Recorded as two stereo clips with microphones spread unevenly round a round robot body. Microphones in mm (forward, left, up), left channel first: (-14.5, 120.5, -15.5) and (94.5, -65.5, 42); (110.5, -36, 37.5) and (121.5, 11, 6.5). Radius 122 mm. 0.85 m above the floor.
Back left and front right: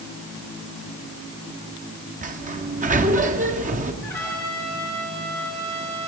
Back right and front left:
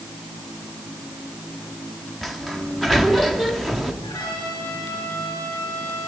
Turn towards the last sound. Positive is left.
turn(degrees=-160)